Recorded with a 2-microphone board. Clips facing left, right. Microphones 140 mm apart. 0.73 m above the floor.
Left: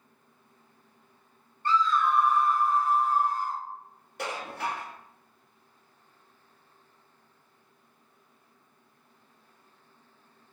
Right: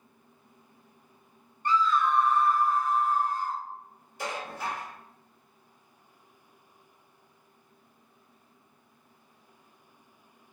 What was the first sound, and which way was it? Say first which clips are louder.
A scream: even; 15° right (ahead or behind).